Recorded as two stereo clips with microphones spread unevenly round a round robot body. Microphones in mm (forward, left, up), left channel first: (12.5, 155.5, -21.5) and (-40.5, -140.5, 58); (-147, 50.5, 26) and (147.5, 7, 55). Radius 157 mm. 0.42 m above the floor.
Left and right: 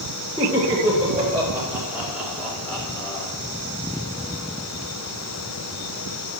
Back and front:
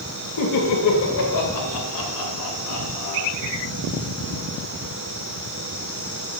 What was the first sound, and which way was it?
Laughter, 175° right.